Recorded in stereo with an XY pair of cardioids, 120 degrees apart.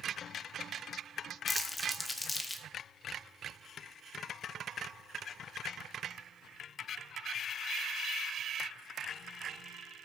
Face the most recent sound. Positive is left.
turn(degrees=15)